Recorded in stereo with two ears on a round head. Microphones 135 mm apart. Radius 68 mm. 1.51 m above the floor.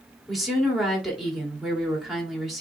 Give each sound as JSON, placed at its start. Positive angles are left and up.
{"t": 0.3, "sound": "a woman speaking", "side_deg": 0, "distance_m": 3.0}